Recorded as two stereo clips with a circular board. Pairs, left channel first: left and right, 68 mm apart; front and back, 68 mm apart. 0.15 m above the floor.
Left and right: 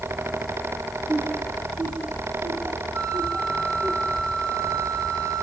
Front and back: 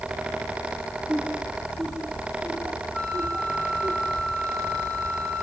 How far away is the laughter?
About 1.7 m.